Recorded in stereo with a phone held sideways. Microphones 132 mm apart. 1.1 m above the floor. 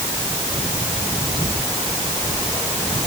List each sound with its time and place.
Only background noise.